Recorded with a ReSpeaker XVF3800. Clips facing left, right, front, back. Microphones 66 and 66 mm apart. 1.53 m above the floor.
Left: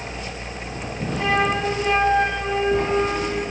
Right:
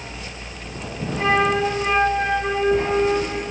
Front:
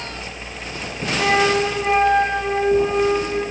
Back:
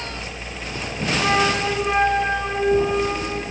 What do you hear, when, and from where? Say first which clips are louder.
1.2 s a flute: right 2 dB, front 3 dB; 30° right, 4.5 m